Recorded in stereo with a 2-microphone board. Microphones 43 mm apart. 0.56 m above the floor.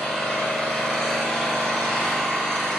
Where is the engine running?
15° left (ahead or behind), 1.7 m.